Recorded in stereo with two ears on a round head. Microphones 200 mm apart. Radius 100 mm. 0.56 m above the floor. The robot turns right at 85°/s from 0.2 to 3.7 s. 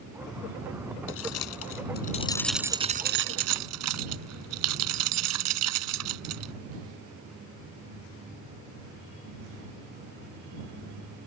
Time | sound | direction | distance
1.1 | keys jangling | 55° left (ahead or behind) | ?